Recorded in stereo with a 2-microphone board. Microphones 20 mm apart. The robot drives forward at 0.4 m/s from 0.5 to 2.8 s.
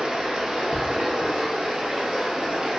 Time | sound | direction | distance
0.0 | running water | 70° right (ahead or behind) | 2.0 m